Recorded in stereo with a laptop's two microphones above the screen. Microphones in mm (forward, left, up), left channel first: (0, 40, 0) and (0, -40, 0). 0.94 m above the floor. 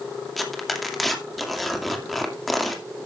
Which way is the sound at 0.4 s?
Centre (ahead or behind).